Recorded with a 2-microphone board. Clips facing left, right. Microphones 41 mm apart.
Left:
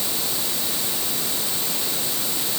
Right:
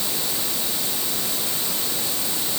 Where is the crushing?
No crushing in this recording.